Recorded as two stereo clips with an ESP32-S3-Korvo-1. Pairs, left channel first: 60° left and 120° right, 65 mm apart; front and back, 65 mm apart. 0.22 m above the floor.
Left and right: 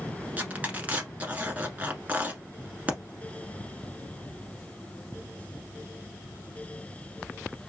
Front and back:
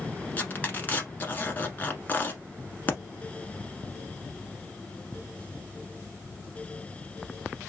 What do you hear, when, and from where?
0.4 s tearing paper: 60° right, 1.1 m